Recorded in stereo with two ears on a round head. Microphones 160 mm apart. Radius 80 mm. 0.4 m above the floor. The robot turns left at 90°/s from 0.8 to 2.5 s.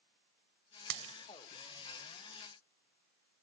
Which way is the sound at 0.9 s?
65° right (ahead or behind).